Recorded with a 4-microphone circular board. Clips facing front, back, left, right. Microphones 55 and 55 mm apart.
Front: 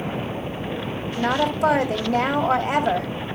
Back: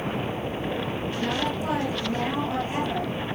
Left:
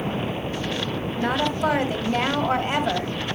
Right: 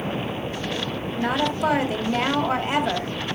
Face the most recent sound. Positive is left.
turn(degrees=-5)